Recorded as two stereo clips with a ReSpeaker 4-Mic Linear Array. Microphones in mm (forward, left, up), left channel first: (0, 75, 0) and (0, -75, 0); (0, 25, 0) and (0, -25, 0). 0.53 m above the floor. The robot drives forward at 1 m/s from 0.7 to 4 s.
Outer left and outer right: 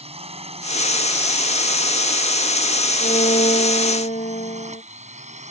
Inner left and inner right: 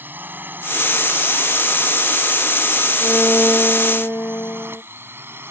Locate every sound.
0.0 s a drone: 40° right (ahead or behind); by 5.5 s 50° right (ahead or behind)
3.0 s a violin: 50° left (ahead or behind)